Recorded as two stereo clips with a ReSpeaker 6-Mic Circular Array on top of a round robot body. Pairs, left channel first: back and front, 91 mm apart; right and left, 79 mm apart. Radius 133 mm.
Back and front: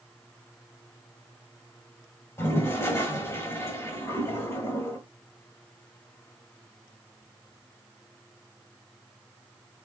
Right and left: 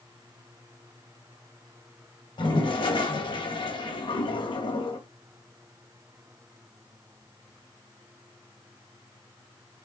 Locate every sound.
2.4 s a toilet flushing: 115° right, 2.0 m